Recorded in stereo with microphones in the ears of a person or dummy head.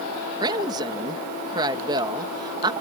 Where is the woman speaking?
25° right (ahead or behind).